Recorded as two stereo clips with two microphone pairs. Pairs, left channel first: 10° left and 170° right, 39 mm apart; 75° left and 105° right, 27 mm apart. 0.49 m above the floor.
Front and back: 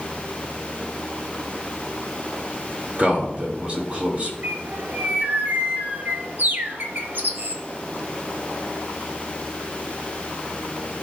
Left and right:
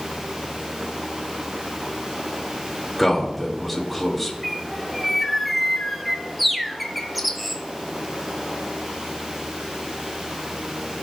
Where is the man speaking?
155° left, 1.8 m.